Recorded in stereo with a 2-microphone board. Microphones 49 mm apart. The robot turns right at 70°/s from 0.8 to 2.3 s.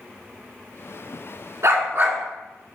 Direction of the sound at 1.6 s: 80° right.